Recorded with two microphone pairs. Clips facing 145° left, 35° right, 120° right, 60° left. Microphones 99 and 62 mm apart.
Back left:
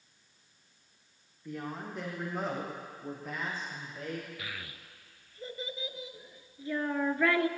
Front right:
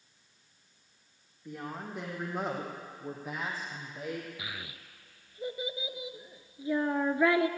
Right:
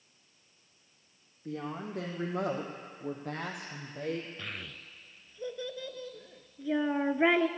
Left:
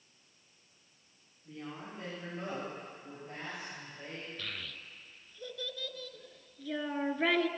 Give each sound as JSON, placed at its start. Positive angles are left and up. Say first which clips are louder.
{"t": 1.4, "sound": "a woman speaking", "louder": "back left 1 dB, right 7 dB", "azimuth_deg": -125, "distance_m": 4.0}
{"t": 4.4, "sound": "a child speaking", "louder": "front right 1 dB, right 1 dB", "azimuth_deg": -90, "distance_m": 0.7}